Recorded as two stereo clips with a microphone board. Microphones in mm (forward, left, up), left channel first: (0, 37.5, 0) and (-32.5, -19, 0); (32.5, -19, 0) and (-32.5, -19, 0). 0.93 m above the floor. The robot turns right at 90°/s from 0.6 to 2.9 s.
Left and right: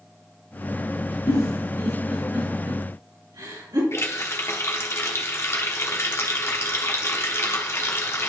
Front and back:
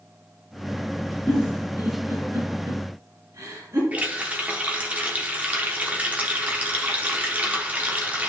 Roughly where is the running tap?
Behind left.